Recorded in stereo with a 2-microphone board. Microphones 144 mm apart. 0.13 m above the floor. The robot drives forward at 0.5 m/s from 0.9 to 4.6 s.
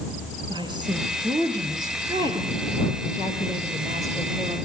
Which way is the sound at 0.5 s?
30° right (ahead or behind).